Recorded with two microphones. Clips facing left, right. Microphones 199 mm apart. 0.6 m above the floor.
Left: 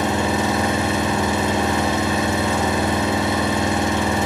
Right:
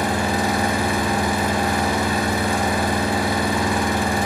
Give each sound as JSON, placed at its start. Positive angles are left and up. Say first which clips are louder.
{"t": 0.0, "sound": "an engine running", "louder": "left 1 dB", "side_deg": 20, "distance_m": 5.0}